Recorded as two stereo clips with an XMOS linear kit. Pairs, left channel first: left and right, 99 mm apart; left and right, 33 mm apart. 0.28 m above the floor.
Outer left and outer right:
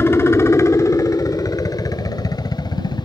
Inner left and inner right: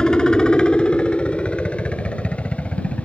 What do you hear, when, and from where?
0.0 s a helicopter: 25° left (ahead or behind); by 3.1 s 40° left (ahead or behind)